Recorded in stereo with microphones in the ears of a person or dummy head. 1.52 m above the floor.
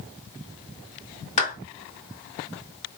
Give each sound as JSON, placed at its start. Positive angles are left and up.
{"t": 1.4, "sound": "a clap", "side_deg": 35, "distance_m": 2.5}